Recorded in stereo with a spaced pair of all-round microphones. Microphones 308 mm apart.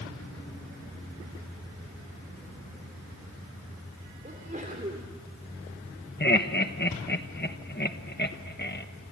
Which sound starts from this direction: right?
A sneeze, at 4.2 s.